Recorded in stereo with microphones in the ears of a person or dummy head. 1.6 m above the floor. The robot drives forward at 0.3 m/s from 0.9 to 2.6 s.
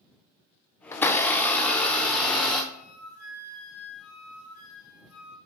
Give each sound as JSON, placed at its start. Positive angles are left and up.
{"t": 0.9, "sound": "a blender", "side_deg": 25, "distance_m": 0.6}
{"t": 2.7, "sound": "a flute", "side_deg": 85, "distance_m": 2.5}